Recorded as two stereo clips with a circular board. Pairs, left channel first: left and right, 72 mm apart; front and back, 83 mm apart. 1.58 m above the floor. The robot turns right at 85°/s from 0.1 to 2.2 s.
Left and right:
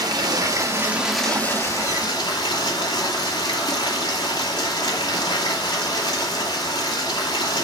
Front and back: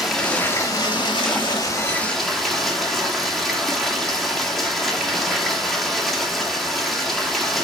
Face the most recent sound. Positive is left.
turn(degrees=90)